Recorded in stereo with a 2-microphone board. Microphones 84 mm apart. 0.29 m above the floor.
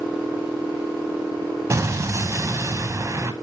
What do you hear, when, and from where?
1.7 s an explosion: 35° right (ahead or behind), 0.5 m